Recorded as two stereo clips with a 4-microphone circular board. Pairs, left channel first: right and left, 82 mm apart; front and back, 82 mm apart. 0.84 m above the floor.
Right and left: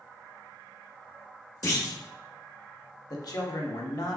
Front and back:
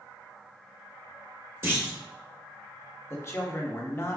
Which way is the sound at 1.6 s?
130° right.